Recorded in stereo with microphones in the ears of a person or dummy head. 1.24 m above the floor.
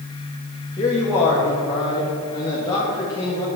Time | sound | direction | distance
0.8 | a man speaking | 20° left (ahead or behind) | 2 m